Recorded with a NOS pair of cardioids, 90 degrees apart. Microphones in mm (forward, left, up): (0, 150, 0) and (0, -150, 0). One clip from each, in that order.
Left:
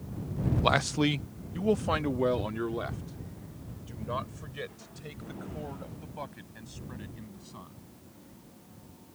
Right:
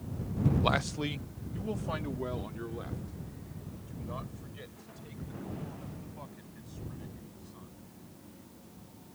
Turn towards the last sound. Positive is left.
turn(degrees=65)